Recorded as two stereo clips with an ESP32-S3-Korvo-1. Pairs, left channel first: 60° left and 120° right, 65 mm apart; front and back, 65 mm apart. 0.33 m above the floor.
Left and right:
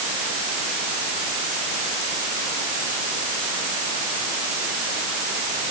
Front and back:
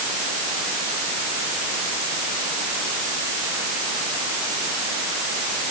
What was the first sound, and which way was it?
Only background noise.